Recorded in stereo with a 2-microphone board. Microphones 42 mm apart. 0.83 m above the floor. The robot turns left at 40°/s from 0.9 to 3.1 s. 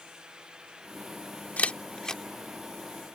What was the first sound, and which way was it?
A camera shutter, 40° left (ahead or behind).